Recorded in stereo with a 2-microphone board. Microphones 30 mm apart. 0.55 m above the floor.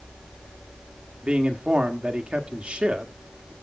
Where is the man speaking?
40° right (ahead or behind), 1.5 m.